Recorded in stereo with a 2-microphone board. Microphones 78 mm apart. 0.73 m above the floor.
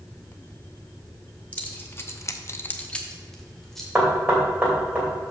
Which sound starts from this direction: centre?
Keys jangling, at 1.5 s.